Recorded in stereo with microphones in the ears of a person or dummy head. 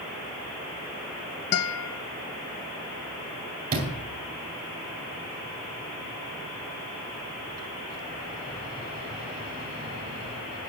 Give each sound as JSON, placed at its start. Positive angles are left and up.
{"t": 1.5, "sound": "a guitar", "side_deg": 70, "distance_m": 0.7}
{"t": 3.7, "sound": "a sliding door", "side_deg": -45, "distance_m": 2.5}